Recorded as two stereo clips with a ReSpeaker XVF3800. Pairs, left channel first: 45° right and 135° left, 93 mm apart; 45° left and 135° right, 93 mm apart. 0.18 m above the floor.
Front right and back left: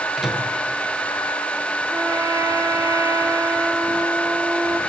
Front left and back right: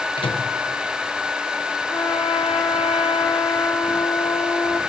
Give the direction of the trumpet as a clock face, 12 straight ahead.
9 o'clock.